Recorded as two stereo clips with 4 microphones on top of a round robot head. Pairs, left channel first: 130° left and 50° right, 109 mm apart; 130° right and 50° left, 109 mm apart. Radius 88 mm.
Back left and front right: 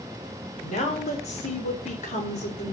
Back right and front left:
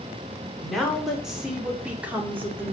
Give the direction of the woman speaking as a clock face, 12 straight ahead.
7 o'clock.